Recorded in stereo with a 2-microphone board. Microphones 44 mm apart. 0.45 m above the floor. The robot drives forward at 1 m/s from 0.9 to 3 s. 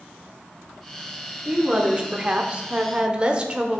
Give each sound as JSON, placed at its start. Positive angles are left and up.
{"t": 1.4, "sound": "a woman speaking", "side_deg": -20, "distance_m": 1.2}